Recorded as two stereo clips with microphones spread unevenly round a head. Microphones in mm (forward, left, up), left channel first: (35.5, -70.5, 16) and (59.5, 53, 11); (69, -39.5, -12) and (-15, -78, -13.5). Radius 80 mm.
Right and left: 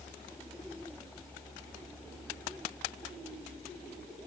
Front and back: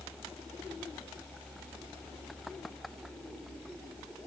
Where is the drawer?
I don't hear a drawer.